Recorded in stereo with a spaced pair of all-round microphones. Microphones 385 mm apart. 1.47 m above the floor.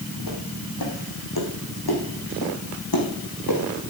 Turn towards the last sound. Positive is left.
turn(degrees=60)  # may be behind; listen again after turning